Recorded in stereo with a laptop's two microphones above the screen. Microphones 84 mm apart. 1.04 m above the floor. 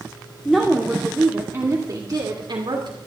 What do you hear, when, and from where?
0.5 s a woman speaking: centre (ahead or behind), 2.5 m; by 3.0 s 70° right (ahead or behind), 3 m